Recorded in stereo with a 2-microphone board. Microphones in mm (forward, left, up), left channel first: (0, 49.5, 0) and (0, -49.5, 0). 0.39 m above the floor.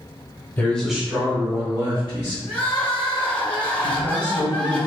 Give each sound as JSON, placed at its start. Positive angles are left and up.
{"t": 0.6, "sound": "a man speaking", "side_deg": 20, "distance_m": 1.0}
{"t": 2.5, "sound": "crying", "side_deg": 15, "distance_m": 0.9}
{"t": 3.8, "sound": "a man speaking", "side_deg": -20, "distance_m": 1.3}